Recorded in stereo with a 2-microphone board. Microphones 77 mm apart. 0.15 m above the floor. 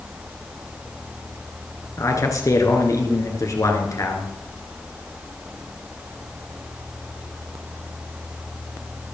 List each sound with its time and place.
2.0 s a man speaking: 45° left (ahead or behind), 2.5 m